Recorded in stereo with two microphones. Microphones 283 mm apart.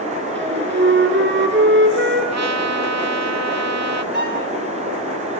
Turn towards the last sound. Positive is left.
turn(degrees=-35)  # may be behind; listen again after turning